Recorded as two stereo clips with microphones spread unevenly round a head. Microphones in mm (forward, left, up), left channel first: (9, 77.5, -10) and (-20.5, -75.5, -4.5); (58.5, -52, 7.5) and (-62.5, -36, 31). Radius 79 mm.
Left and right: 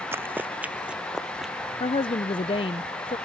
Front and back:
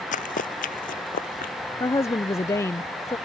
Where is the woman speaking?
35° left.